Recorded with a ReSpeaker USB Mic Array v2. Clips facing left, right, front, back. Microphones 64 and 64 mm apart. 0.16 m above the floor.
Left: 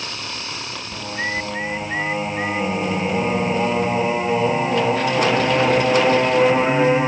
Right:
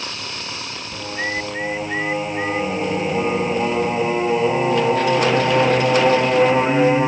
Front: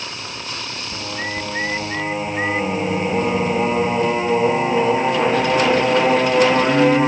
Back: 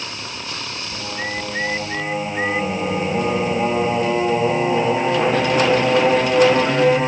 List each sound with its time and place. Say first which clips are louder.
0.9 s singing: even, even; 30° left, 0.7 m